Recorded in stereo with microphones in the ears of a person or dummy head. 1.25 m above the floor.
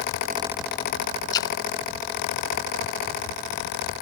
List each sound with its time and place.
1.3 s a splash: 25° left (ahead or behind)